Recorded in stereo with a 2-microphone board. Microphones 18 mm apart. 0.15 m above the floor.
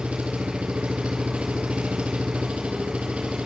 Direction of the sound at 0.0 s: 65° right (ahead or behind).